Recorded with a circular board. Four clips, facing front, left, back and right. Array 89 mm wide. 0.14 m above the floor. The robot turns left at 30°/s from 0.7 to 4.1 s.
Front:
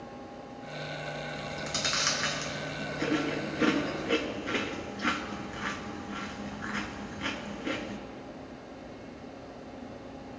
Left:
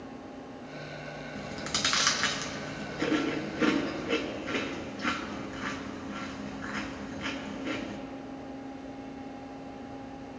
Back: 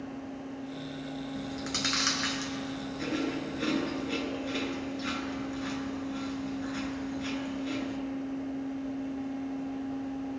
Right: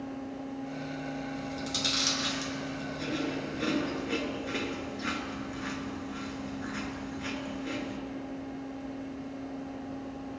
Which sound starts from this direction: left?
Chewing, at 1.4 s.